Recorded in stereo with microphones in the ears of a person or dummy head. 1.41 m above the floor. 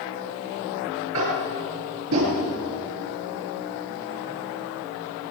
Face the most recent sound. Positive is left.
turn(degrees=-85)